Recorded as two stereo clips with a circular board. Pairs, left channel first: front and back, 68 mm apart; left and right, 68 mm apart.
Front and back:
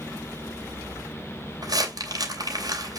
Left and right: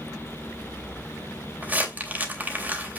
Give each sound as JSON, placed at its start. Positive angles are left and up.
{"t": 1.6, "sound": "crumpling", "azimuth_deg": -155, "distance_m": 3.0}